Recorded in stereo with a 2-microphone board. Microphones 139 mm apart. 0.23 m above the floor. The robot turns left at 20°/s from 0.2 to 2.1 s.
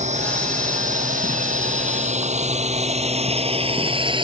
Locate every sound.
0.0 s a drone: 65° right (ahead or behind); by 4.2 s 40° right (ahead or behind)